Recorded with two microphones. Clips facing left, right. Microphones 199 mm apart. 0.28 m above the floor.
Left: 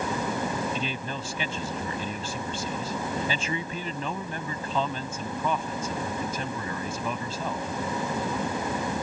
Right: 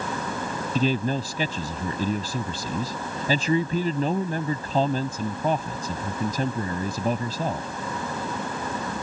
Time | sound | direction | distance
0.8 | a man speaking | 40° right (ahead or behind) | ?